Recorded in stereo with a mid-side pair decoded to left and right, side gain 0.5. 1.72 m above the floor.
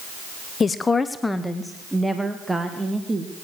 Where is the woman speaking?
35° left, 0.9 m; by 3.3 s 25° right, 1.9 m.